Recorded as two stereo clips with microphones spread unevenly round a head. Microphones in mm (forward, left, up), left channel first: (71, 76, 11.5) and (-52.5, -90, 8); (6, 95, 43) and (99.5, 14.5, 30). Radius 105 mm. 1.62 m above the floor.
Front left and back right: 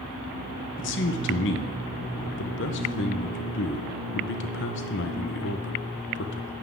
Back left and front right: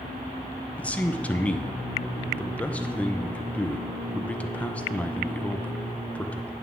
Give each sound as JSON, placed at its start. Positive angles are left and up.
{"t": 0.8, "sound": "a man speaking", "azimuth_deg": 65, "distance_m": 0.9}